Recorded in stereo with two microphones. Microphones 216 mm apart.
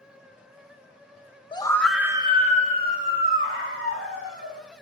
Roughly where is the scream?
Left.